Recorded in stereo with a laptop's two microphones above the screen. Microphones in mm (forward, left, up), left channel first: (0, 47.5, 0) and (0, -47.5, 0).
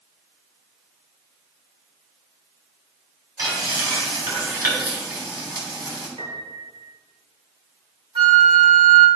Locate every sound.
3.4 s frying: 45° right (ahead or behind), 3 m
6.2 s a piano: 70° right (ahead or behind), 1.9 m
8.2 s a flute: 60° right (ahead or behind), 1.7 m